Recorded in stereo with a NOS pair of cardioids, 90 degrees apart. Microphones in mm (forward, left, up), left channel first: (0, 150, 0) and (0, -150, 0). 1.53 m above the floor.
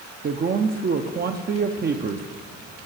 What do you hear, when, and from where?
0.2 s a man speaking: 30° right, 0.7 m